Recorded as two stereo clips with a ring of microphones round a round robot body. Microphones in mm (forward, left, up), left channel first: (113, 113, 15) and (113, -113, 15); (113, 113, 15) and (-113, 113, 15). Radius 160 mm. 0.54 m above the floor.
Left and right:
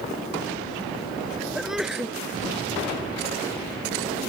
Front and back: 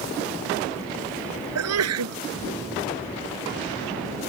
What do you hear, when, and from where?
1.6 s a sneeze: straight behind